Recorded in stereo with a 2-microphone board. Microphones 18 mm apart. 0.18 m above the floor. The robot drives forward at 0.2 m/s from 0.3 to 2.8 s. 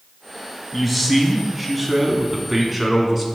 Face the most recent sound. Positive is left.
turn(degrees=5)  # may be behind; listen again after turning